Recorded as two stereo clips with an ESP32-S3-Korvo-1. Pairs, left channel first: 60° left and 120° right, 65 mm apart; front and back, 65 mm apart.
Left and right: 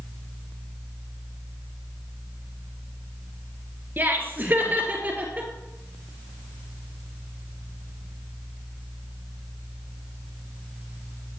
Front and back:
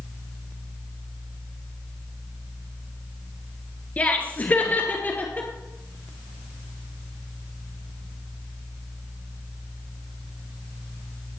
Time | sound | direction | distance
4.0 | laughter | 65° right | 2 m